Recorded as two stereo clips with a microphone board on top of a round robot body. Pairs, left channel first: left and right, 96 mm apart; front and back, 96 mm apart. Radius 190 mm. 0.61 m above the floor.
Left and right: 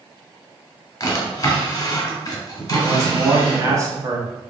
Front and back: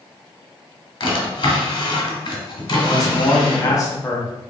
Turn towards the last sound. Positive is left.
turn(degrees=-40)